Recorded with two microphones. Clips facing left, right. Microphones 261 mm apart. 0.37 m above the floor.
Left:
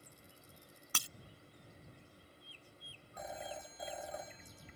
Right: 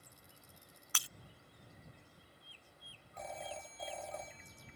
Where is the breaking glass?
45° left (ahead or behind).